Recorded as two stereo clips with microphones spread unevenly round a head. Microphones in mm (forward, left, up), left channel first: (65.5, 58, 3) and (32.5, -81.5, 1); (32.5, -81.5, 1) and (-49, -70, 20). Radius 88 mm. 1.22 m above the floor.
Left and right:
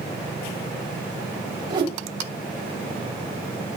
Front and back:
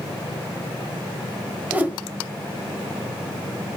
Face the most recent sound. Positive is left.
turn(degrees=-150)